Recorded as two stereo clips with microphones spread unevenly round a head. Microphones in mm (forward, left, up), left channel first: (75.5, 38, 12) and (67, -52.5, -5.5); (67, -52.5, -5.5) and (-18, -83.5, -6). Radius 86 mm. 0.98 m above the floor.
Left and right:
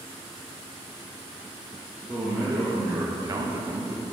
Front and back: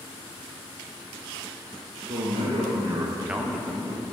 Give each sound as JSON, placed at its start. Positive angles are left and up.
{"t": 2.1, "sound": "a man speaking", "azimuth_deg": -170, "distance_m": 1.2}